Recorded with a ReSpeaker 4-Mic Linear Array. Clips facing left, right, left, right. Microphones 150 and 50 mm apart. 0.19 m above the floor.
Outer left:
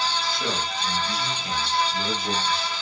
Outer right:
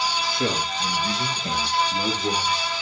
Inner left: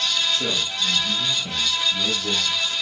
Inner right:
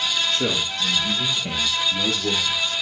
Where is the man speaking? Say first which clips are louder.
Outer right 3 dB, inner right 1 dB; 60° right (ahead or behind), 3.5 m; by 2.7 s 65° right (ahead or behind), 5.5 m.